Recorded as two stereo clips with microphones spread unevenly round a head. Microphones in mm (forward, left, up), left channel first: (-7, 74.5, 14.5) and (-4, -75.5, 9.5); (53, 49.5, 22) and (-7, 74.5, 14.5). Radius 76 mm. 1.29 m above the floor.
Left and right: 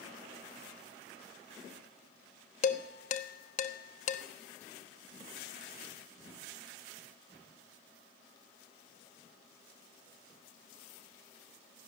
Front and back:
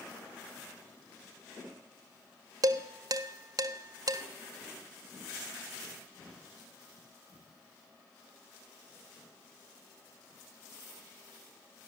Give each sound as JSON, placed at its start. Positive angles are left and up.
{"t": 2.6, "sound": "dishes clattering", "azimuth_deg": 130, "distance_m": 1.2}